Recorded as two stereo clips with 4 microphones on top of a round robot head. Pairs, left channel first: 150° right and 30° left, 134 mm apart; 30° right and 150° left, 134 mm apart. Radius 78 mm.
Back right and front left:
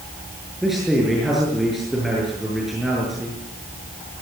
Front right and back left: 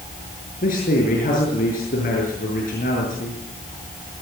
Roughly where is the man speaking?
Ahead right.